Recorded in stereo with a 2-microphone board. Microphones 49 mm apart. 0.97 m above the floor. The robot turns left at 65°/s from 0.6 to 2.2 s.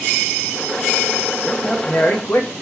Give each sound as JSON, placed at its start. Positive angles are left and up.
{"t": 1.4, "sound": "a man speaking", "azimuth_deg": -170, "distance_m": 1.4}